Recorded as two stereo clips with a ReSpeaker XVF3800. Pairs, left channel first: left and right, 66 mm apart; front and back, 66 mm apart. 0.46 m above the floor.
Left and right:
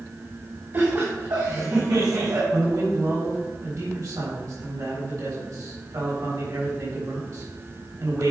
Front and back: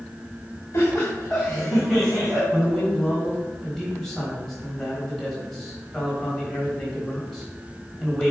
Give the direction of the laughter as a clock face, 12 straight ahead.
2 o'clock.